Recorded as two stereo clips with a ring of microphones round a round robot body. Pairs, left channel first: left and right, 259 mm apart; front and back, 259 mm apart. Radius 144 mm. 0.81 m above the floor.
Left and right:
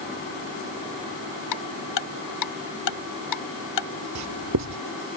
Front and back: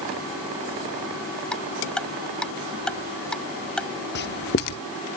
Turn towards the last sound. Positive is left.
turn(degrees=-50)